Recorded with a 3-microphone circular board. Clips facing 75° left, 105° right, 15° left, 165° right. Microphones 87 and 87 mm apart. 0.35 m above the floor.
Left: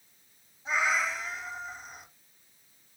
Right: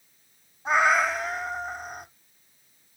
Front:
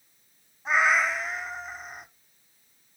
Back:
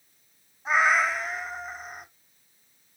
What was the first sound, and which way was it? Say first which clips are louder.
A cat meowing: right 7 dB, back 1 dB; 80° right.